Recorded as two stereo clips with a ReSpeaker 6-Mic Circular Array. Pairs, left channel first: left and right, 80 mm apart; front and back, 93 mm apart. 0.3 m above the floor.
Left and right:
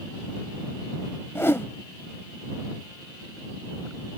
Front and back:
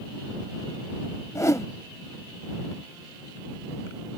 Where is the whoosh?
40° left.